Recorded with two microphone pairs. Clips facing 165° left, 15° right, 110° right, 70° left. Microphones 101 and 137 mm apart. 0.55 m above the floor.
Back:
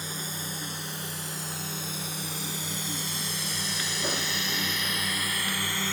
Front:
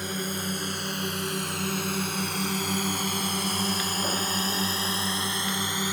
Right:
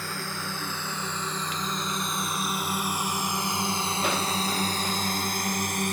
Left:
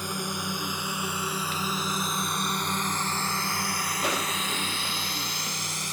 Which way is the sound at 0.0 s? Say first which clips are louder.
Front 6 dB, left 2 dB; straight ahead.